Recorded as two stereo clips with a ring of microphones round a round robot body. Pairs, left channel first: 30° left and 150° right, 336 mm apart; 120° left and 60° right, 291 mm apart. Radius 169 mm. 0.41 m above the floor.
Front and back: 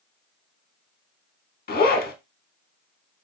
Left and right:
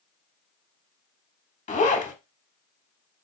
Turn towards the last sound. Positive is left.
turn(degrees=75)